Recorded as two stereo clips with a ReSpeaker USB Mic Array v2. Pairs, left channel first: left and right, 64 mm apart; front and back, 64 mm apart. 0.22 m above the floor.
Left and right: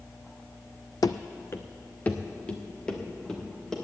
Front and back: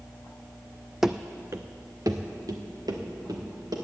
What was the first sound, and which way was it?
Running footsteps, 95° left.